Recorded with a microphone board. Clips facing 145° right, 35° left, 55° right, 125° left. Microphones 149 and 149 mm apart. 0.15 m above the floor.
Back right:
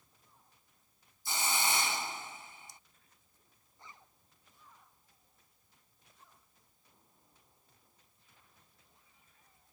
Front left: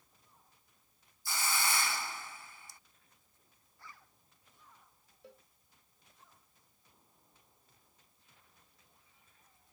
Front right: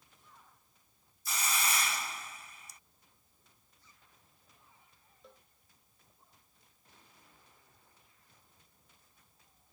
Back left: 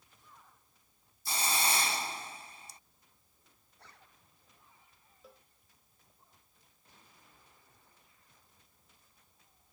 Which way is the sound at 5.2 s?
40° left.